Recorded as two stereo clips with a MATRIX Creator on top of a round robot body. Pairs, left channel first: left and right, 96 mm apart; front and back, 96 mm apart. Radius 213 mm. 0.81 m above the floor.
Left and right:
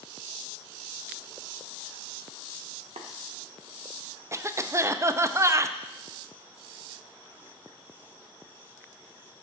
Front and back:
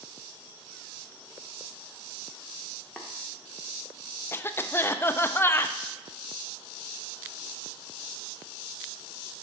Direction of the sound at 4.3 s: 50° right.